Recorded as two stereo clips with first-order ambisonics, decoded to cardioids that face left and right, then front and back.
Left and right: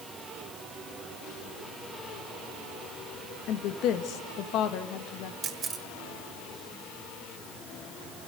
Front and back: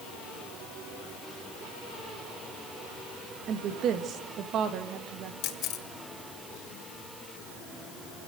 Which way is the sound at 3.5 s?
130° left.